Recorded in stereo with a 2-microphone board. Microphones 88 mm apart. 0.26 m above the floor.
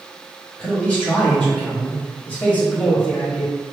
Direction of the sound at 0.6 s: 20° left (ahead or behind).